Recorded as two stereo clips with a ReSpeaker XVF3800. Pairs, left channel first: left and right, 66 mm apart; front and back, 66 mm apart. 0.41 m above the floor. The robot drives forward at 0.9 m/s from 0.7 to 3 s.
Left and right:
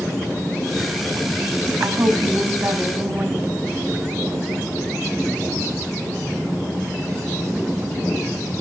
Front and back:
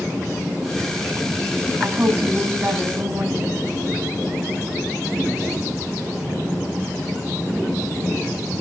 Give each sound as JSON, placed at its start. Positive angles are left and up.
{"t": 1.8, "sound": "a woman speaking", "azimuth_deg": -115, "distance_m": 2.0}